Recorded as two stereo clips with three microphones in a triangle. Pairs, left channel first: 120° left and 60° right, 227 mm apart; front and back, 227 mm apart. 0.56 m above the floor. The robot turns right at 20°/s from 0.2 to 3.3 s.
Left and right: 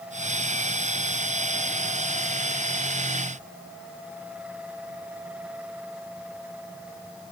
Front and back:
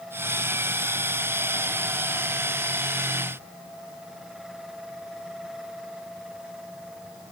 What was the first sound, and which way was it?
Only background noise.